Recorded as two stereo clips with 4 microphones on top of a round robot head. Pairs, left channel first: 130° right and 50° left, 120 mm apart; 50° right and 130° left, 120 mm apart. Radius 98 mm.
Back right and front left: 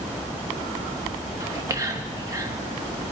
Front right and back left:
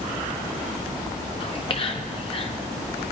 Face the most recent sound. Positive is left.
turn(degrees=-10)